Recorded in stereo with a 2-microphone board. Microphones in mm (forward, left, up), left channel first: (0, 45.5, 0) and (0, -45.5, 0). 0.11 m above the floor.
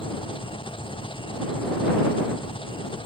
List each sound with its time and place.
0.0 s an engine running: 70° left (ahead or behind)